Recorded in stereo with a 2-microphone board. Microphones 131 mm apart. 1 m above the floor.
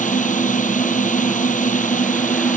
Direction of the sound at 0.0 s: 65° left (ahead or behind).